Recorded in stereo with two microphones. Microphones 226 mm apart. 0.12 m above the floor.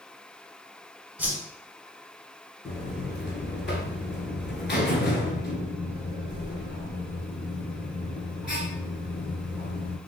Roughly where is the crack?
I don't hear a crack.